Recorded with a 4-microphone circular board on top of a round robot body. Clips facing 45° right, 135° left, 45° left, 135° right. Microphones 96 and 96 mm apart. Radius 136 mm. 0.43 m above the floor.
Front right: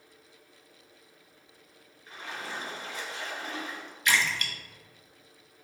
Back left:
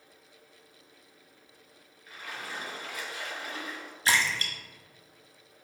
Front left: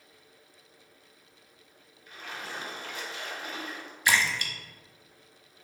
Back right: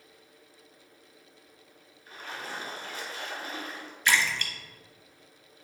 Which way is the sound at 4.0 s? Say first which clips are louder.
Even, even; 115° left.